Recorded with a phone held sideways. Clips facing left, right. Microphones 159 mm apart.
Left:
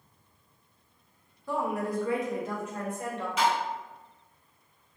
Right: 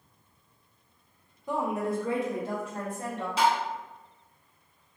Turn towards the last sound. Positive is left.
turn(degrees=-30)  # may be behind; listen again after turning